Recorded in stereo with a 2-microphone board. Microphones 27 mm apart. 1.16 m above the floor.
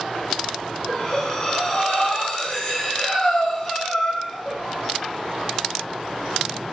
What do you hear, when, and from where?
0.9 s breathing: 30° left (ahead or behind), 1.2 m